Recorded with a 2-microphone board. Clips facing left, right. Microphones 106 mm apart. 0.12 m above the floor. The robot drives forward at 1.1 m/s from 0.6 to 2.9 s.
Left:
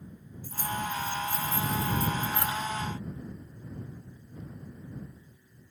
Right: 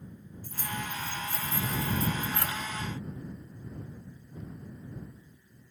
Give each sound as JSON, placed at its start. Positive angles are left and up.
{"t": 0.4, "sound": "keys jangling", "side_deg": 5, "distance_m": 5.0}